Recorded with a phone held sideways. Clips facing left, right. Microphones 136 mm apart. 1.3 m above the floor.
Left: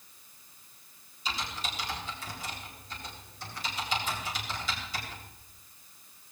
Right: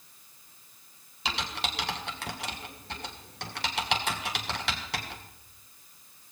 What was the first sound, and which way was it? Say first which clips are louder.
Typing on a keyboard: right 3 dB; 75° right (ahead or behind).